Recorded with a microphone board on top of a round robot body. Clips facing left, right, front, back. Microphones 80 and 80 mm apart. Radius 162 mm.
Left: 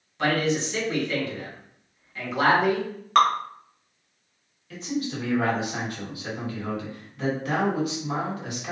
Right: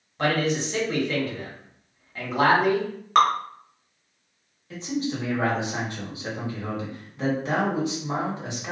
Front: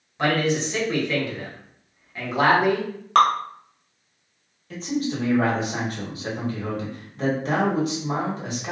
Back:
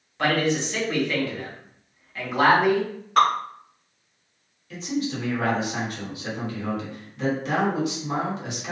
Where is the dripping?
5° right, 0.8 m.